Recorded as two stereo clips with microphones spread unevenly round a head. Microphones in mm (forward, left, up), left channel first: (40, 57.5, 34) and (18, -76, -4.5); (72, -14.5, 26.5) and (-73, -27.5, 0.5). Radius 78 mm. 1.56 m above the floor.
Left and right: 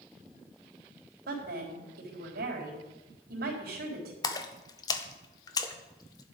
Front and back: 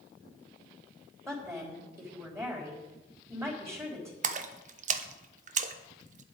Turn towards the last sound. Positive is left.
turn(degrees=150)